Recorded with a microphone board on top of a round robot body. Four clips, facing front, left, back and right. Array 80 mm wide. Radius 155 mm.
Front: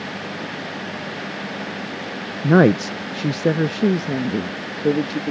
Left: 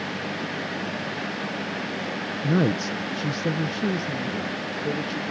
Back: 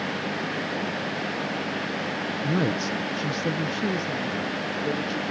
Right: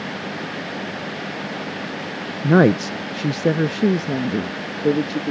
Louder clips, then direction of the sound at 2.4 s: Right 9 dB, front 12 dB; 45° right.